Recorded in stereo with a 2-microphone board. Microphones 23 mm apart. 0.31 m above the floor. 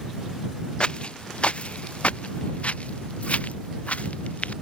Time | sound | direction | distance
0.8 | footsteps | 45° left (ahead or behind) | ?